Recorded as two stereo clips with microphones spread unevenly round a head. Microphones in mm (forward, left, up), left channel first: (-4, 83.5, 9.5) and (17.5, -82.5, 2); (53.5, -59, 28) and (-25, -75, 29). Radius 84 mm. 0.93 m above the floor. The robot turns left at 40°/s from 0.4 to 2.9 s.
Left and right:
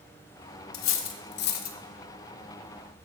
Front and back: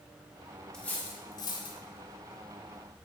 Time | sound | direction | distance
0.7 | cutlery clinking | 95° left | 0.8 m